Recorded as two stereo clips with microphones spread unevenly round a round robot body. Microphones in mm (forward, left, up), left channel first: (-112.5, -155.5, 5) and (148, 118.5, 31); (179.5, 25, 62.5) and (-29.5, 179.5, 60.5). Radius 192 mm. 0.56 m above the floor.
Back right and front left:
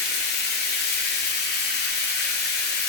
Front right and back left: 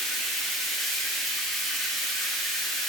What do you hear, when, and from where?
0.0 s running water: 125° right, 0.9 m